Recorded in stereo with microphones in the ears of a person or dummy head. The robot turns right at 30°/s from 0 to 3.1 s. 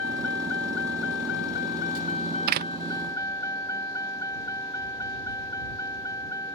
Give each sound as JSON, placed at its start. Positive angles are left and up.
{"t": 0.0, "sound": "a vehicle", "side_deg": 80}
{"t": 2.5, "sound": "a door slam", "side_deg": -50}